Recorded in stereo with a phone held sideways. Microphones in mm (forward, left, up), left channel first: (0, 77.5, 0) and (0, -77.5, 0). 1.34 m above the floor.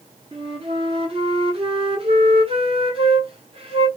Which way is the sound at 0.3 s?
40° right (ahead or behind).